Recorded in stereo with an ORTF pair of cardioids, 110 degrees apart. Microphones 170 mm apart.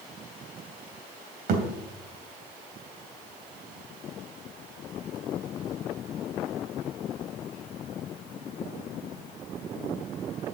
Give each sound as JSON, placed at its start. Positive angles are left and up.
{"t": 1.5, "sound": "a thud", "azimuth_deg": -65, "distance_m": 3.0}